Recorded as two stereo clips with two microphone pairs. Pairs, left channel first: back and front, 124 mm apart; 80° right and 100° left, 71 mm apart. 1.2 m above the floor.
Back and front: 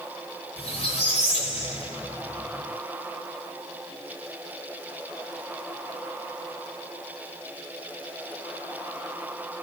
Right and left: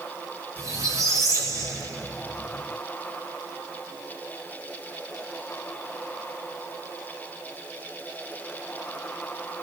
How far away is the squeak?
About 2.5 m.